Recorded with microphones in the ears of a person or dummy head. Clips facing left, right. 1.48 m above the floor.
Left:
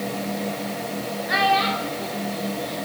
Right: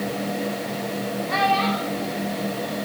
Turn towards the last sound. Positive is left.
turn(degrees=20)  # may be behind; listen again after turning